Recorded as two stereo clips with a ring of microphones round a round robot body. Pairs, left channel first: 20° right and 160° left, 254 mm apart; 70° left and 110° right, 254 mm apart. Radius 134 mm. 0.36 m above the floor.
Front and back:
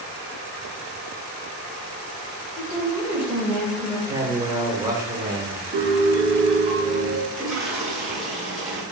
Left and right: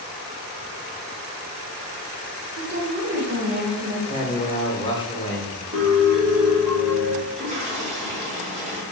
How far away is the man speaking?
About 0.9 m.